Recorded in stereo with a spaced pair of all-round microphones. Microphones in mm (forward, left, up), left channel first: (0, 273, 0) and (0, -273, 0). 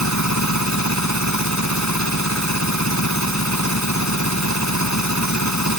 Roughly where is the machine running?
Left.